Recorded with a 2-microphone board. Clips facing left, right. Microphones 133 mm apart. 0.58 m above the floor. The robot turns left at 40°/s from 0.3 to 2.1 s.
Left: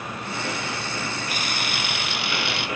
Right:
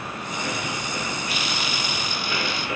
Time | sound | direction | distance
1.3 | a camera shutter | 135° left | 1.2 m